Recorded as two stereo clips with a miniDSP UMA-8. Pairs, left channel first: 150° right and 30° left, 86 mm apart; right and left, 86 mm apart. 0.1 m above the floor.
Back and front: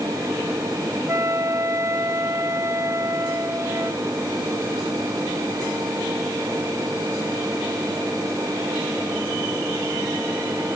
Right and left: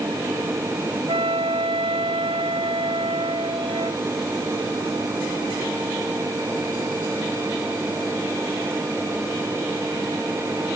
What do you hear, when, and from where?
1.1 s a flute: 85° left